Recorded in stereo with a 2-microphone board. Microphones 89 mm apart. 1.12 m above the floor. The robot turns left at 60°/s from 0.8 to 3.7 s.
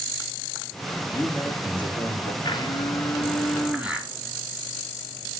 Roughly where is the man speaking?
Behind left.